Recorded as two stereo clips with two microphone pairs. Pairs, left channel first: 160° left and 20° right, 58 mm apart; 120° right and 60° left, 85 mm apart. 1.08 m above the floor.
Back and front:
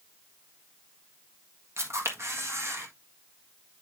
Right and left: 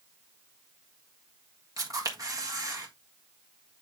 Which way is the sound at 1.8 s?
20° left.